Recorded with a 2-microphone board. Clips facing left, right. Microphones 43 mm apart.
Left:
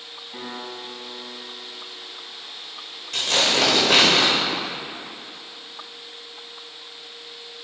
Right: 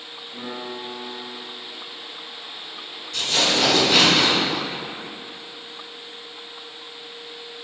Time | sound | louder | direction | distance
0.3 | a piano | right 2 dB | 70° left (ahead or behind) | 3 m
3.1 | tearing paper | left 1 dB | 80° left | 3 m